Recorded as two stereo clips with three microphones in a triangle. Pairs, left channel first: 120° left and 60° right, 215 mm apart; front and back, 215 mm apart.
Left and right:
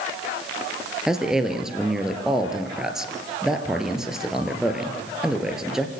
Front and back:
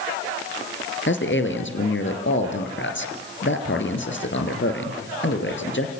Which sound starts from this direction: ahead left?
A man speaking, at 1.1 s.